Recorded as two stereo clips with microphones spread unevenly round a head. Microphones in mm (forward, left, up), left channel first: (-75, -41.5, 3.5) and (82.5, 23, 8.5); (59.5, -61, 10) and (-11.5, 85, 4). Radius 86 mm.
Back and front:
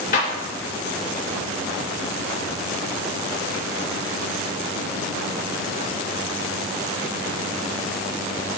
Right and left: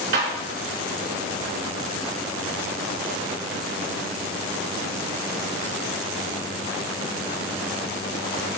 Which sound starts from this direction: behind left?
A clap, at 0.1 s.